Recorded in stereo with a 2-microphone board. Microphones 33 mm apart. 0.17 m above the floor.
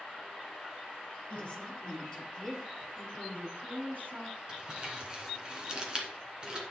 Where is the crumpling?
25° right (ahead or behind), 2.5 m.